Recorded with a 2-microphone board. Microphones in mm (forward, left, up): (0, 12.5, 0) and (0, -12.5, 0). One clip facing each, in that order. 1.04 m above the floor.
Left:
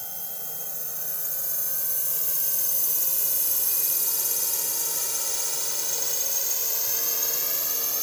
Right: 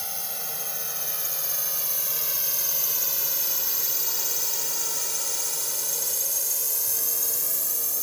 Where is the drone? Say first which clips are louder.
Right 6 dB; 55° right (ahead or behind); by 8.0 s 30° left (ahead or behind).